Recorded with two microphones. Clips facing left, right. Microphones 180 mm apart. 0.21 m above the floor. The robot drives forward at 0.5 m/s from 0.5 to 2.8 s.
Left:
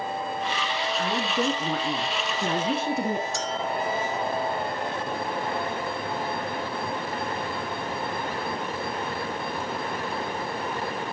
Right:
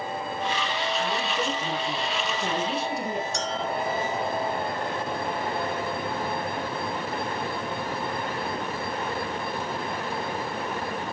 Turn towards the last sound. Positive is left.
turn(degrees=0)  # may be behind; listen again after turning